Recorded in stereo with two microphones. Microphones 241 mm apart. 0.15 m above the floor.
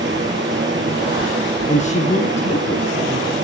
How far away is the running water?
About 3.5 m.